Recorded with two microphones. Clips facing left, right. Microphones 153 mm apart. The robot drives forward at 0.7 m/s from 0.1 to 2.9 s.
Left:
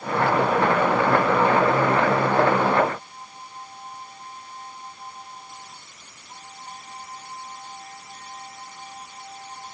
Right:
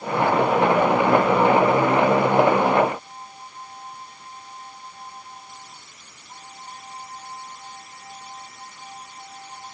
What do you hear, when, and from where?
Only background noise.